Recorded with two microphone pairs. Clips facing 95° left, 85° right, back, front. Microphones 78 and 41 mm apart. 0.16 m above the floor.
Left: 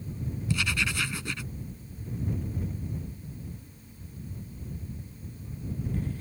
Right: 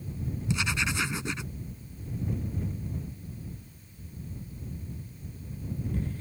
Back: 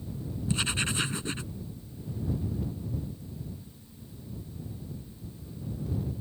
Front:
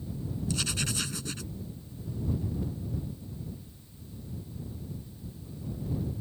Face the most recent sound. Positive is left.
turn(degrees=-140)